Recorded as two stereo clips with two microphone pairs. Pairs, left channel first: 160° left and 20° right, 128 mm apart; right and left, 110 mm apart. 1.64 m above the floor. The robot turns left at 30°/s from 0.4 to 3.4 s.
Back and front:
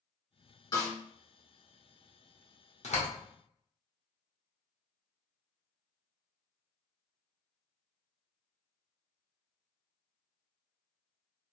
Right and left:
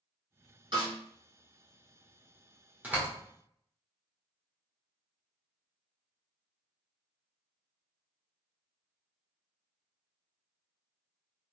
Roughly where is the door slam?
Behind.